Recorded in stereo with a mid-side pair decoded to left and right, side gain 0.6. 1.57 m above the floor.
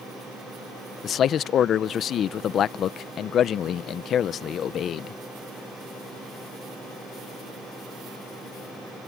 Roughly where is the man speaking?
Ahead left.